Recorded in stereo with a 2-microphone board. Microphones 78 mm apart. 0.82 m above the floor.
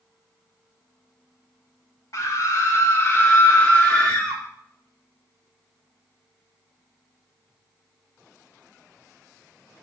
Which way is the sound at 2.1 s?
50° left (ahead or behind).